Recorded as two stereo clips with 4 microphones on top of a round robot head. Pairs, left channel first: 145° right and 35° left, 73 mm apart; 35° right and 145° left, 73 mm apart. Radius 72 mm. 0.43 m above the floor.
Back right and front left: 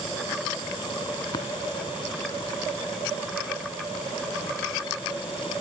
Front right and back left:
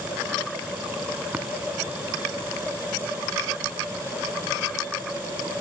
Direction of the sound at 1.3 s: 145° right.